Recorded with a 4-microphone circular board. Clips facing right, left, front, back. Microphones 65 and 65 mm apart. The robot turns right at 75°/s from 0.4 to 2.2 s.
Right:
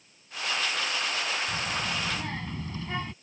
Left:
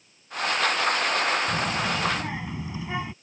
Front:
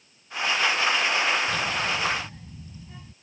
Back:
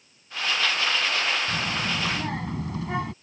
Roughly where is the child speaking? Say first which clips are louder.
Left 5 dB, front 1 dB; behind left.